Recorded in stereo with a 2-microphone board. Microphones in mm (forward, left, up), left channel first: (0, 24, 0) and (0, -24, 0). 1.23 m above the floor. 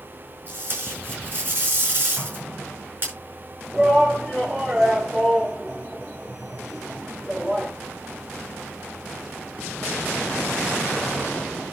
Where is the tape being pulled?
40° right (ahead or behind), 5.5 m.